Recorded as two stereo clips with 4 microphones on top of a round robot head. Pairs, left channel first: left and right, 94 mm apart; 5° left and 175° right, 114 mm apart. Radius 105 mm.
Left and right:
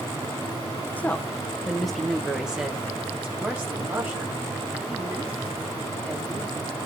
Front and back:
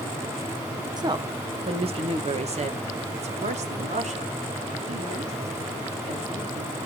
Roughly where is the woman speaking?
Behind left.